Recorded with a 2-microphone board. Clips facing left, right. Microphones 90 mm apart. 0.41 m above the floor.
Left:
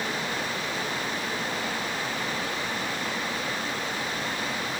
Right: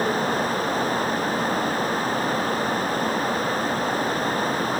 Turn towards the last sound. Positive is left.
No sound to turn to.